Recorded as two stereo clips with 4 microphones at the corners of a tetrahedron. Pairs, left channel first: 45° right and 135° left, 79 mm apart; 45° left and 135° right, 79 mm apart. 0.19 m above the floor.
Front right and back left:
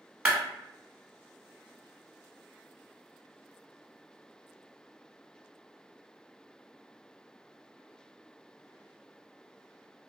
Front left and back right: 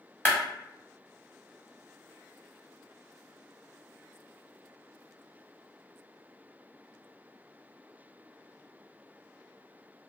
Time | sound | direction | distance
0.2 | a clap | 70° left | 0.8 m